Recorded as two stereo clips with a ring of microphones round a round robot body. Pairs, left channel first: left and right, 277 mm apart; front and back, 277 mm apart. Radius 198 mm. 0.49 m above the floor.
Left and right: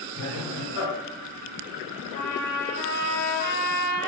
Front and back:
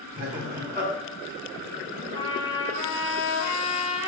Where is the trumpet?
150° right, 1.3 m.